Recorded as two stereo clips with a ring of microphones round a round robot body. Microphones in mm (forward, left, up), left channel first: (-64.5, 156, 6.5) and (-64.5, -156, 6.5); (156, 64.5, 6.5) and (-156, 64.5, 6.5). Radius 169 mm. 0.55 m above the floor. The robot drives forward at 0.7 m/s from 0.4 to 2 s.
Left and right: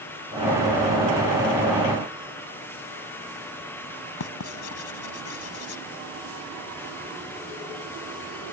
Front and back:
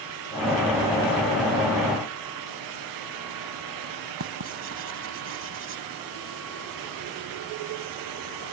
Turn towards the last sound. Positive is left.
turn(degrees=130)